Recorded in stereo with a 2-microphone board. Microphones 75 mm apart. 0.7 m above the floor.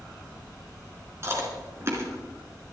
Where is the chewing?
40° right (ahead or behind), 3.5 m.